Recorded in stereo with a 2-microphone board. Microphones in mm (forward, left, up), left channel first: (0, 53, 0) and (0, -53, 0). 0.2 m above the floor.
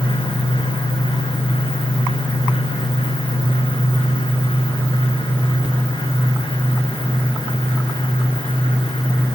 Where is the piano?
No piano in this recording.